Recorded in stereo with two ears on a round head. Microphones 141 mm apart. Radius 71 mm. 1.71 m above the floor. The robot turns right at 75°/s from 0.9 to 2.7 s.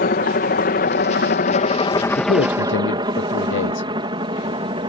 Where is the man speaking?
45° left; by 3.9 s 85° left.